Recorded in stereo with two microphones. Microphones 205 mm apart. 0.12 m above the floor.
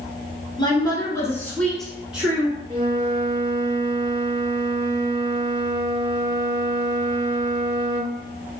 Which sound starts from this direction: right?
A flute, at 2.7 s.